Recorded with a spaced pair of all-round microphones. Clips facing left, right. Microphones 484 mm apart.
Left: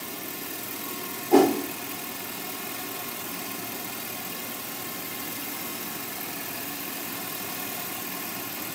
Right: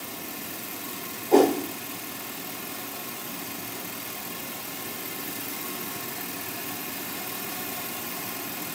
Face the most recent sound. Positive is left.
turn(degrees=30)  # may be behind; listen again after turning